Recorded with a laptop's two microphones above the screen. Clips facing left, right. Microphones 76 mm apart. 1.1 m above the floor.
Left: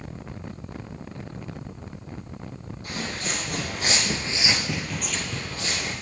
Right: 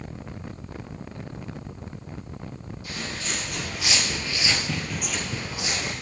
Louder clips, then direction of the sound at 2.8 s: Left 2 dB; 45° left (ahead or behind).